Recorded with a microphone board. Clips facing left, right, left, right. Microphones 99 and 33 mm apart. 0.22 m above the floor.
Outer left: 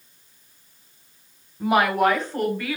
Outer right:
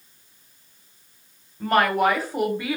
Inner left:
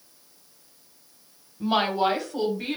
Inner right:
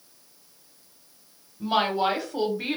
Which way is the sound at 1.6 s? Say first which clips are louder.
Even, inner left 1 dB; 10° left (ahead or behind).